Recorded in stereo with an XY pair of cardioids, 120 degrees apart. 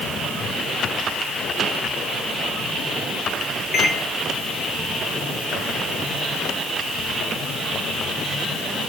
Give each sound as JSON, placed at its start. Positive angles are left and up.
{"t": 3.7, "sound": "a microwave", "azimuth_deg": 55, "distance_m": 1.0}